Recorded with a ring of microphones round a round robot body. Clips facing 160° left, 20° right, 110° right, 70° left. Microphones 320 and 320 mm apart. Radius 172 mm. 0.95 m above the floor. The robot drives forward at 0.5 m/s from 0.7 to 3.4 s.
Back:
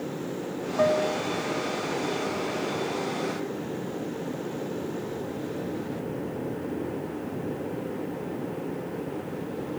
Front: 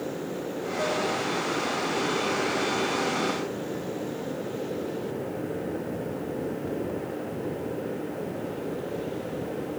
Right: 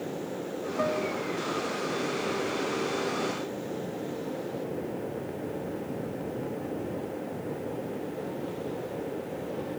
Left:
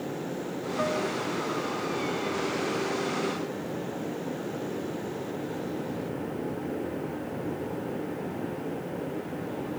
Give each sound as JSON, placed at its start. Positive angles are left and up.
{"t": 0.8, "sound": "a piano", "azimuth_deg": 155}